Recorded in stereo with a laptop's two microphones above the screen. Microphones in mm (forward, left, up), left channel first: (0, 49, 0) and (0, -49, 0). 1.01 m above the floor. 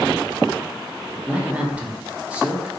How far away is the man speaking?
About 0.5 m.